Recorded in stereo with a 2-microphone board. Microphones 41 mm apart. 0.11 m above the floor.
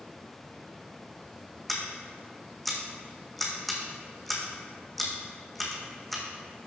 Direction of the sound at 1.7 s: 5° left (ahead or behind).